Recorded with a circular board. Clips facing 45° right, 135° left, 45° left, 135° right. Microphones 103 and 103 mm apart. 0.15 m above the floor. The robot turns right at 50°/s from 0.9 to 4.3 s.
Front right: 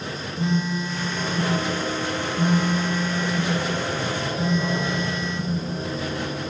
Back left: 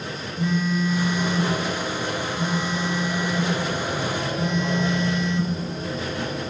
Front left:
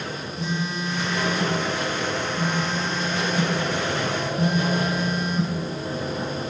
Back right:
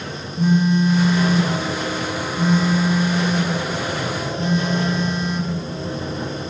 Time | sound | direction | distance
0.4 | a phone buzzing | 110° right | 1.1 m